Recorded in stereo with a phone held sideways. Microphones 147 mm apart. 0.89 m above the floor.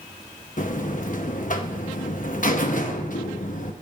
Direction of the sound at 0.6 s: 65° left (ahead or behind).